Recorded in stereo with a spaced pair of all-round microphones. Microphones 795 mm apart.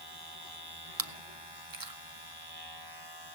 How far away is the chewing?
About 1.0 m.